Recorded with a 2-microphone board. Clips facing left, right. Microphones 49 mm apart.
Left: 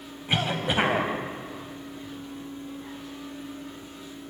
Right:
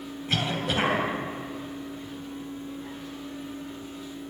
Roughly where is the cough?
Centre.